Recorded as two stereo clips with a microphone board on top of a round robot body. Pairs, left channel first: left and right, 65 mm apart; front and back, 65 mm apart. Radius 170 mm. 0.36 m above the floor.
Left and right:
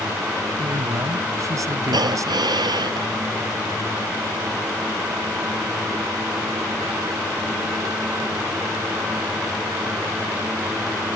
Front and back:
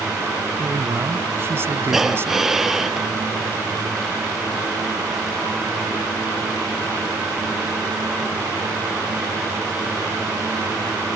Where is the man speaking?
125° right.